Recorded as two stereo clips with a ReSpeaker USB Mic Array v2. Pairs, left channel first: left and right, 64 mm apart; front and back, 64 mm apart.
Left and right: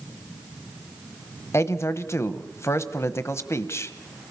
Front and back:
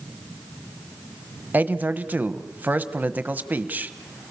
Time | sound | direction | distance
1.5 | a man speaking | 120° left | 1.0 m